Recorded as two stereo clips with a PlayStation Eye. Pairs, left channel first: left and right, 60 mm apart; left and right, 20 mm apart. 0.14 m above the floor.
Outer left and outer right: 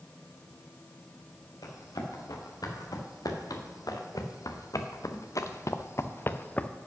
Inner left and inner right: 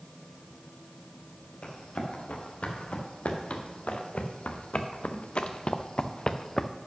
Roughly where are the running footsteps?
Left.